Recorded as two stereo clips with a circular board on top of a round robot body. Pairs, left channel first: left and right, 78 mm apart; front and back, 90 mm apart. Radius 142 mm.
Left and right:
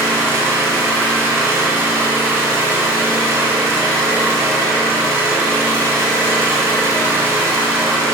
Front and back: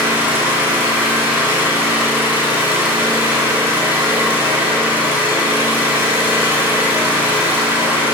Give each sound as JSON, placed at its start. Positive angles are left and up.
{"t": 0.0, "sound": "an engine running", "azimuth_deg": -125, "distance_m": 1.1}